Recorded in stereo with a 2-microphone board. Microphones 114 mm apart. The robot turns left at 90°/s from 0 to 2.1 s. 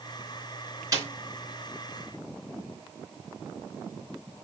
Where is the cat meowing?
No cat meowing in this recording.